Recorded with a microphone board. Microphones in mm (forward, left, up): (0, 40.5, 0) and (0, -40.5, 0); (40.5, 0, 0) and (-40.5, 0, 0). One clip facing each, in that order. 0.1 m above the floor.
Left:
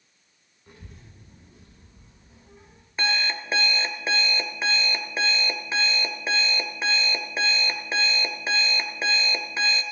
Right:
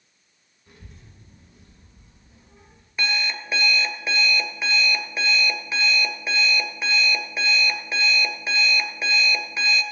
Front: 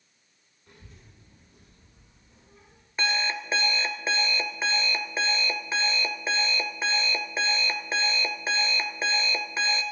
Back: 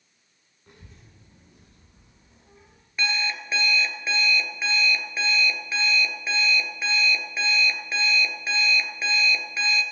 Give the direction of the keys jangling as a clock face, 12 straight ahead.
I don't hear keys jangling.